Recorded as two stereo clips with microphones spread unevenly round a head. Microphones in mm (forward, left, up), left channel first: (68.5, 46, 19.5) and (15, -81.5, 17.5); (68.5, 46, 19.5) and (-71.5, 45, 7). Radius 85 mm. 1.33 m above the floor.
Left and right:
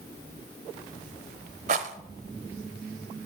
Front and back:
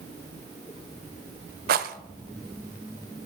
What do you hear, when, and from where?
1.7 s a rattle: 160° right, 0.7 m